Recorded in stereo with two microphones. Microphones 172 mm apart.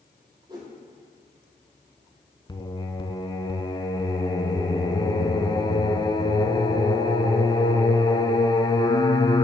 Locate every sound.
0.5 s a whoosh: 25° right (ahead or behind), 3 m
2.5 s singing: 25° left (ahead or behind), 0.7 m